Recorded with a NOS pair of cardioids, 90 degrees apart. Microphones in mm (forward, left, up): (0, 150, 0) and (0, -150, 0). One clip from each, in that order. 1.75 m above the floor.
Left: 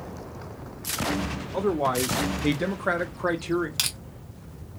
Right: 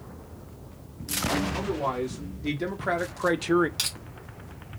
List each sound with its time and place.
1.5 s a man speaking: 55° left, 1.0 m; by 3.7 s 40° right, 0.5 m
3.8 s crushing: 35° left, 1.0 m